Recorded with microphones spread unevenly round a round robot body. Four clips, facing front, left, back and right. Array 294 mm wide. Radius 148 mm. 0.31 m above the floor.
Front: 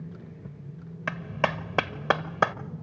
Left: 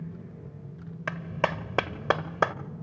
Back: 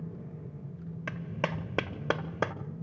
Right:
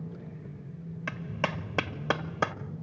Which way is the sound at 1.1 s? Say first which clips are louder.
Left 4 dB, front 6 dB; 110° left.